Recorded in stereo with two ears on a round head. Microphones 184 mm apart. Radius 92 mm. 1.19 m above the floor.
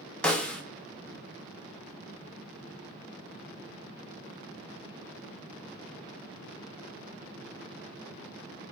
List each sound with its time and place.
0.2 s a snare drum: 5° left (ahead or behind), 0.8 m